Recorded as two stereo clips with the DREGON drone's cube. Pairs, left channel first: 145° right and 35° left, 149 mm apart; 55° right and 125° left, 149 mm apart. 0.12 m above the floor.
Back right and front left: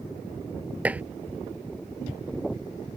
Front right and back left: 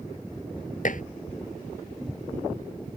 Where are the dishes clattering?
45° right.